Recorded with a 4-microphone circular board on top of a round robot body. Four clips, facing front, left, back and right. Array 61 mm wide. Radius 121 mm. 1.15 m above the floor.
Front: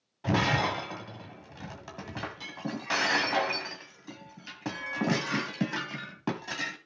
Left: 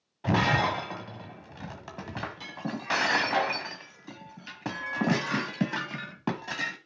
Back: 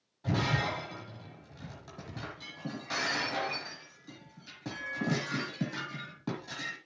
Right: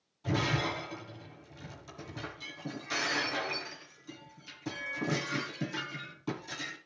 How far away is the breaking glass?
About 1.6 m.